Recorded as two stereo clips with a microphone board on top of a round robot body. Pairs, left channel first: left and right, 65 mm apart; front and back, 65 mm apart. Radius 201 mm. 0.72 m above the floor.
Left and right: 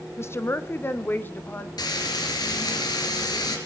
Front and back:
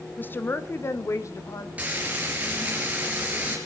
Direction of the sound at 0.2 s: 55° left.